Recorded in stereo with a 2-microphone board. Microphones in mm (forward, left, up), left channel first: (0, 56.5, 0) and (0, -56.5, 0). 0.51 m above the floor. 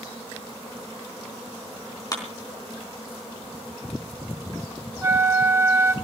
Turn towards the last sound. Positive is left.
turn(degrees=-25)  # may be behind; listen again after turning